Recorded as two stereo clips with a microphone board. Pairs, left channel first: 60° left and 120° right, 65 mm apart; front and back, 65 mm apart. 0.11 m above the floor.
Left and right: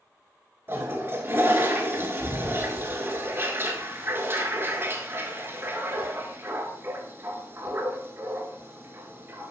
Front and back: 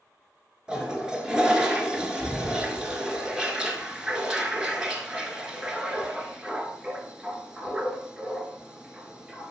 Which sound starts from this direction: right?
A toilet flushing, at 0.7 s.